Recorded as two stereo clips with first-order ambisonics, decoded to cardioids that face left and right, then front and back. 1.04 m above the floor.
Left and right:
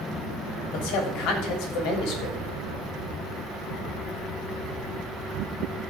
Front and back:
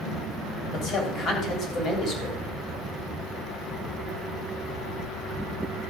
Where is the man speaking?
60° left, 3.5 m.